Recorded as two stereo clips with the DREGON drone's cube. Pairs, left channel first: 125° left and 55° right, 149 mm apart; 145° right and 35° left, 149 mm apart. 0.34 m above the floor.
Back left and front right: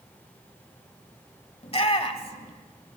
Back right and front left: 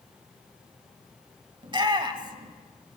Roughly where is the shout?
Left.